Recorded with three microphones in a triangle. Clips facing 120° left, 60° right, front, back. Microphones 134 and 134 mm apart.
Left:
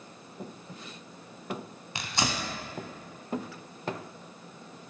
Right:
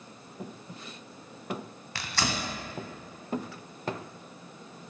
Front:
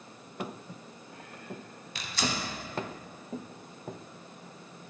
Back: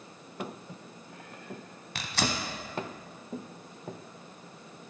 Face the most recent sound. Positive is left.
turn(degrees=-170)